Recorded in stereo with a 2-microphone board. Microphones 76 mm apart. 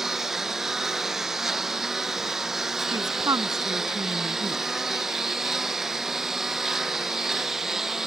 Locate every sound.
0.0 s a lawn mower: 5° right (ahead or behind)
2.9 s a woman speaking: 60° right (ahead or behind)